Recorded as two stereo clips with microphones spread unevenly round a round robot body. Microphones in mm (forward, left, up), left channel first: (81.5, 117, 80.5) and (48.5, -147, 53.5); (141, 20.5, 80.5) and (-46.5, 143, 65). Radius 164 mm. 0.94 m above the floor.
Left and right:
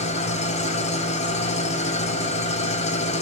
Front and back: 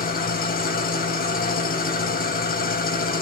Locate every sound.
0.0 s an engine running: 15° left, 4 m